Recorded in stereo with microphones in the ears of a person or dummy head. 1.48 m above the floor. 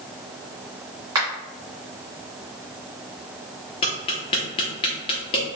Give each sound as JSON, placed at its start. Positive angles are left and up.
{"t": 1.1, "sound": "a finger snap", "side_deg": -10, "distance_m": 1.8}
{"t": 3.8, "sound": "tapping", "side_deg": 30, "distance_m": 1.0}